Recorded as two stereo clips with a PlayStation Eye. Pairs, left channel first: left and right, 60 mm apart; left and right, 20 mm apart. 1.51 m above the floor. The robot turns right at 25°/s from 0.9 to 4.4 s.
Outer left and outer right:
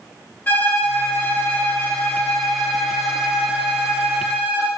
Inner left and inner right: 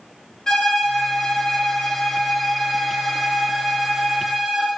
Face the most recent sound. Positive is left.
turn(degrees=-140)